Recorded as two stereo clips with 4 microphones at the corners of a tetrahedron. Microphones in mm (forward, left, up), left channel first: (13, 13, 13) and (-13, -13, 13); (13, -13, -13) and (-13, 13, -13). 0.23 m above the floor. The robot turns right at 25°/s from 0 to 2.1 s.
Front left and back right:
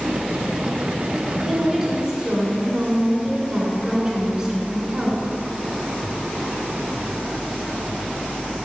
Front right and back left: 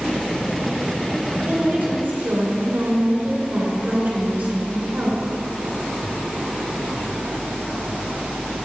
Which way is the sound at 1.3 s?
145° left.